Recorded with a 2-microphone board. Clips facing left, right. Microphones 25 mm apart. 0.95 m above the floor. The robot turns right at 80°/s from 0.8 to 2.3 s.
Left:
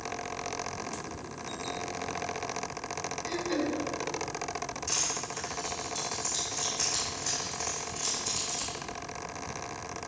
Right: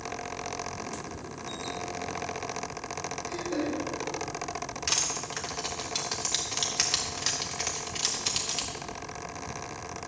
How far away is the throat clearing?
About 1.7 m.